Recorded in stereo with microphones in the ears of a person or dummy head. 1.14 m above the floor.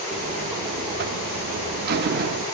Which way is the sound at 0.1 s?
55° right (ahead or behind).